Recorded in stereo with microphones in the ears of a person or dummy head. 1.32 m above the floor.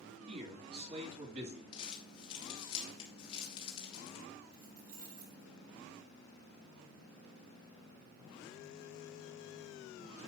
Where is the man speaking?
40° right (ahead or behind), 3.5 m.